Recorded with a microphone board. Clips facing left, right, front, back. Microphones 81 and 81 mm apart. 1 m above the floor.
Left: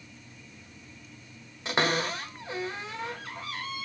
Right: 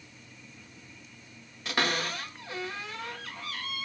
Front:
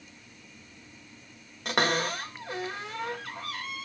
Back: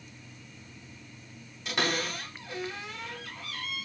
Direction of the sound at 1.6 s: 25° left.